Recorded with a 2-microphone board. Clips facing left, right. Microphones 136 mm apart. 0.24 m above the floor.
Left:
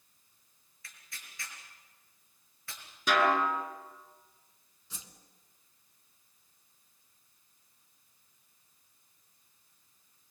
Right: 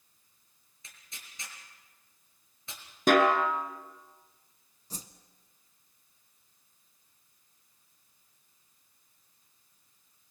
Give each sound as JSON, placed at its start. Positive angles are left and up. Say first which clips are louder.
{"t": 0.8, "sound": "tearing paper", "louder": "left 1 dB", "side_deg": -20, "distance_m": 4.0}
{"t": 3.1, "sound": "a snare drum", "louder": "right 4 dB", "side_deg": -50, "distance_m": 2.0}
{"t": 4.9, "sound": "a whoosh", "louder": "right 7 dB", "side_deg": -40, "distance_m": 1.3}